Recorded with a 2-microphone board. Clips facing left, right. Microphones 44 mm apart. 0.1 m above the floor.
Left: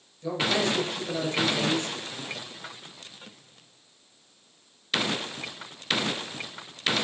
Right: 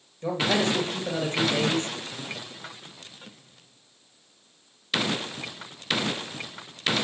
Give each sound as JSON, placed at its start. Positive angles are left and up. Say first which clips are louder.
{"t": 0.2, "sound": "a man speaking", "louder": "right 2 dB", "side_deg": -40, "distance_m": 2.5}